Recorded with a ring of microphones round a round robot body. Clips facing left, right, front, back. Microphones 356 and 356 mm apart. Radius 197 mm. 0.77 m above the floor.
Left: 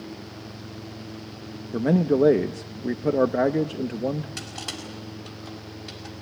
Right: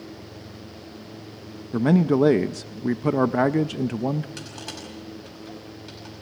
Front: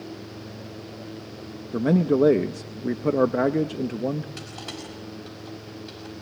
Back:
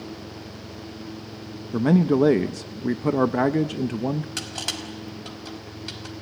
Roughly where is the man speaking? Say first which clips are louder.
Right 1 dB, back 1 dB; behind right.